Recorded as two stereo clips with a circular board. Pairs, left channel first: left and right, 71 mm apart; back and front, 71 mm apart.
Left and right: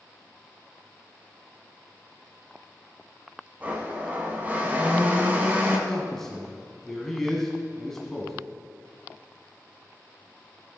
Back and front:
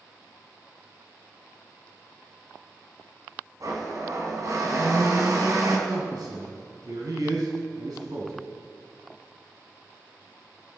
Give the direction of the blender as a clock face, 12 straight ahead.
1 o'clock.